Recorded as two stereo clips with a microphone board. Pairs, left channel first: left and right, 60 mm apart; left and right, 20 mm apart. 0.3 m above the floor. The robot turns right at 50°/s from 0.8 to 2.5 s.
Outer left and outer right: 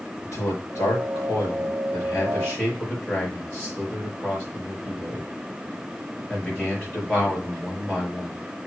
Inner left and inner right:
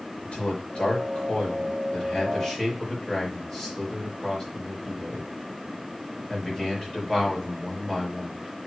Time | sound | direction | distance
0.2 | a man speaking | 70° left (ahead or behind) | 4.5 m